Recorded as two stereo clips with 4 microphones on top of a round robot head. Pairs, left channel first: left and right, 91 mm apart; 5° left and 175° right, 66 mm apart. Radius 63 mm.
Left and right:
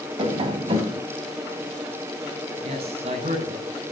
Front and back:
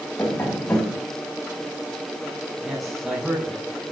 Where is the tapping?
65° right, 5 m.